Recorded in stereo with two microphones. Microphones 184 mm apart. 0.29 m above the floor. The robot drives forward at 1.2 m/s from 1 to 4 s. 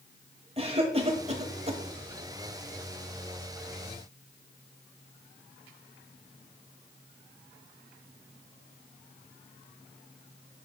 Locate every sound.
0.6 s a cough: 30° right (ahead or behind), 1.3 m